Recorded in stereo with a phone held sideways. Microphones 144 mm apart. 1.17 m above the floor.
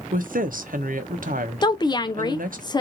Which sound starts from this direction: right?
A woman speaking, at 0.1 s.